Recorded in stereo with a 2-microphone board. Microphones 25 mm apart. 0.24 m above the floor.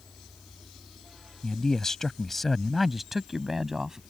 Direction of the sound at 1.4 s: 30° left (ahead or behind).